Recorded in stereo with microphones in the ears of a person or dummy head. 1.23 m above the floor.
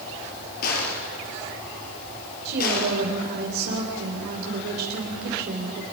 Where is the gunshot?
55° left (ahead or behind), 4.5 m.